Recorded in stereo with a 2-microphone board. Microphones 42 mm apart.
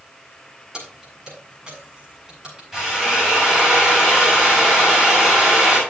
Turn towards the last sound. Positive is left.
turn(degrees=-5)  # may be behind; listen again after turning